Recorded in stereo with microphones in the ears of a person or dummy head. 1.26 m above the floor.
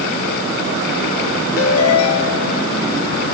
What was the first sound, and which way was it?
A ringtone, 80° left.